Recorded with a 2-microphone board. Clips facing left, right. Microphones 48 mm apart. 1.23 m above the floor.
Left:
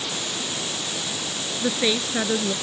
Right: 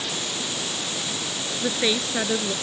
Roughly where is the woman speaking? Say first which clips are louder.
Left 1 dB; centre.